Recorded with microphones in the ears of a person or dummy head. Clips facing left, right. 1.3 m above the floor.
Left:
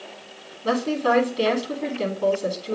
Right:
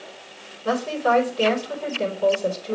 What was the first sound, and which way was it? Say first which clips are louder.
A woman speaking: left 1 dB; 40° left (ahead or behind).